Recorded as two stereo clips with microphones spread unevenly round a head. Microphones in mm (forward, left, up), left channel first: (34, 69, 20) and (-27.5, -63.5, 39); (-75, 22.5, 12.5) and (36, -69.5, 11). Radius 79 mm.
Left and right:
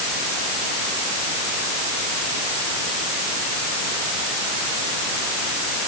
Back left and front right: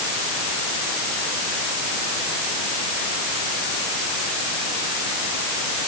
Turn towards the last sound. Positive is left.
No sound to turn to.